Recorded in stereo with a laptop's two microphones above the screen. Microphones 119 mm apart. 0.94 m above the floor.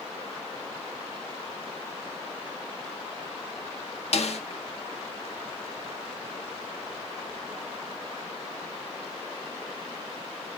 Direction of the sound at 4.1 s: 60° left (ahead or behind).